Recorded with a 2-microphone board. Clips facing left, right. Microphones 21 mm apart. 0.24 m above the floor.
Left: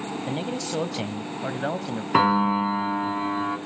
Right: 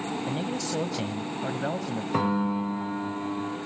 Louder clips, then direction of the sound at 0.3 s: Left 1 dB; 20° left (ahead or behind).